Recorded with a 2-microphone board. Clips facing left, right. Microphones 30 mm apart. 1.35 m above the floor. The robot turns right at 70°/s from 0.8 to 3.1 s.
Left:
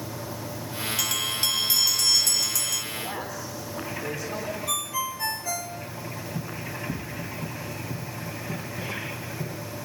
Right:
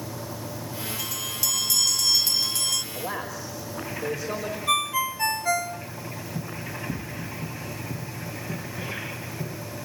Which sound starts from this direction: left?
A bell, at 1.0 s.